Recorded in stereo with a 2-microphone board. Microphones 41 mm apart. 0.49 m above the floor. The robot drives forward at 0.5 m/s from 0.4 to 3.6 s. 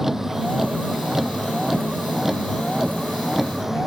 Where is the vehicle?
10° right (ahead or behind).